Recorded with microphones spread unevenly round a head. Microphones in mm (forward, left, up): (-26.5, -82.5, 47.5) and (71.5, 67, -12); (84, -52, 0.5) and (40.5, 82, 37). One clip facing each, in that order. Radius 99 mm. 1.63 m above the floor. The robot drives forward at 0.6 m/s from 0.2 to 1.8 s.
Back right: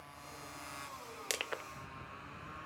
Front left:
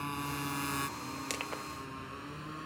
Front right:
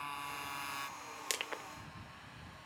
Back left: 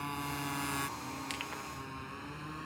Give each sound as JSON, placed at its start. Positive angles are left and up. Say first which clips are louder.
{"t": 0.0, "sound": "a motorcycle", "louder": "front left 15 dB, back left 7 dB", "azimuth_deg": 75}
{"t": 1.3, "sound": "crushing", "louder": "front left 2 dB, back left 2 dB", "azimuth_deg": -95}